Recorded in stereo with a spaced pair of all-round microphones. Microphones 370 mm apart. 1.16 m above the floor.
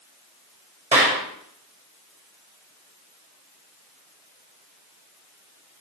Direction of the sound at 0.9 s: 20° right (ahead or behind).